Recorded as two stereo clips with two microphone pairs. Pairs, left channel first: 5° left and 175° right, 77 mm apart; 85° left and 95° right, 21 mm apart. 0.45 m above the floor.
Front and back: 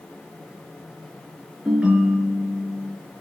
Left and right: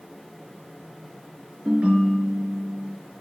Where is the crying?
No crying in this recording.